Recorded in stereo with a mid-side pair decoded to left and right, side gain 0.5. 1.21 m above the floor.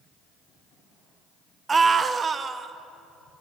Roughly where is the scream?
Ahead right.